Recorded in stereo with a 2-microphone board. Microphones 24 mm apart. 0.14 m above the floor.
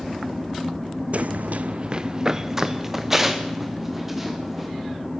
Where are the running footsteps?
55° right (ahead or behind), 0.6 m; by 4.7 s 10° right (ahead or behind), 4.5 m.